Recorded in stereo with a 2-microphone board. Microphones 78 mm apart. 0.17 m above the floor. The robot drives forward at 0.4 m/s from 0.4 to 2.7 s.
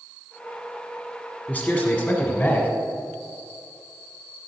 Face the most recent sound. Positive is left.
turn(degrees=20)  # may be behind; listen again after turning